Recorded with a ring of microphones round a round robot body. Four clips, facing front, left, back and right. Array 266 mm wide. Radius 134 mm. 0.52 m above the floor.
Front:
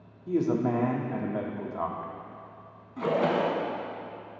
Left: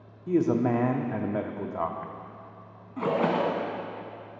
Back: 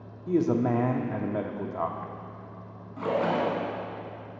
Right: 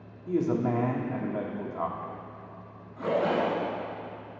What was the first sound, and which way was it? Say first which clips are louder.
A man speaking: left 3 dB, back 2 dB; 125° left.